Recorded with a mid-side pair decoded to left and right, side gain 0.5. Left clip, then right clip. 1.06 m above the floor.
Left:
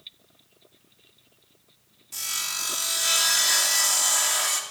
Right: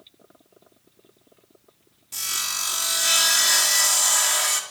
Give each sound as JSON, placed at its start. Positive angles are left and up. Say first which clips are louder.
{"t": 2.1, "sound": "sawing", "louder": "right 3 dB", "azimuth_deg": -25, "distance_m": 2.5}